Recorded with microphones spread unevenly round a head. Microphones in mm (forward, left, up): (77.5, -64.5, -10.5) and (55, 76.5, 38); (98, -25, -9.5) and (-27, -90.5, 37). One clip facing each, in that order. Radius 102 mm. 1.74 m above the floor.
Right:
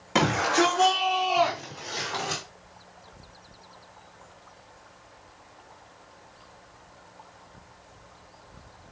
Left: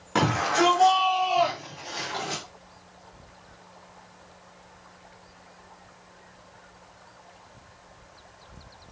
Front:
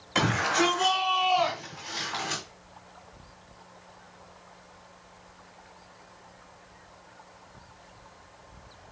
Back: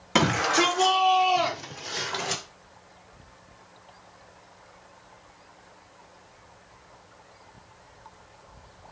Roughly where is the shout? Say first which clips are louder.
Even, back 3 dB; behind.